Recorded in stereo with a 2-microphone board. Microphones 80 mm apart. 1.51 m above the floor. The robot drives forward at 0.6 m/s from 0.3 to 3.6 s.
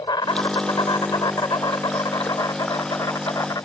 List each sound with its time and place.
0.0 s an insect: 65° left (ahead or behind); by 3.7 s 50° left (ahead or behind)